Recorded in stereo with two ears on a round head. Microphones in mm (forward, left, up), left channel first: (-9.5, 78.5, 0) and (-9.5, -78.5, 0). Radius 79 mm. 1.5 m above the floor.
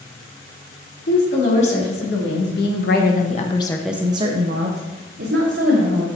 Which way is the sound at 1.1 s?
75° left (ahead or behind).